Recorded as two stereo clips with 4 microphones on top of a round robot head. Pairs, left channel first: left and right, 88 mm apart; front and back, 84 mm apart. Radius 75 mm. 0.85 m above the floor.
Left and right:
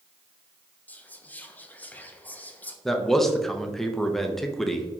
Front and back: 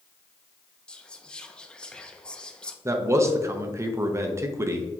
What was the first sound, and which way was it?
Whispering, 60° left.